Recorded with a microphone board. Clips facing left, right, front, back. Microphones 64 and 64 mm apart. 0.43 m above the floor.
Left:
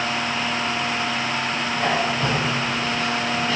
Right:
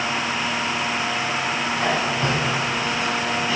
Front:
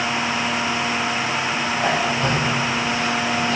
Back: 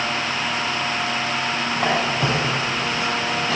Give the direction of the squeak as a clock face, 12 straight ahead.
6 o'clock.